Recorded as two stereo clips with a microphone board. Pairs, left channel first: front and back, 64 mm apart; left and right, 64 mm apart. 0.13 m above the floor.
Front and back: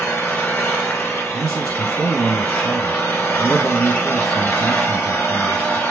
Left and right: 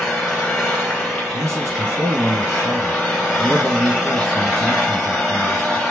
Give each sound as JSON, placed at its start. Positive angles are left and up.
{"t": 0.0, "sound": "an engine running", "azimuth_deg": 10, "distance_m": 1.3}
{"t": 1.3, "sound": "a man speaking", "azimuth_deg": -80, "distance_m": 1.6}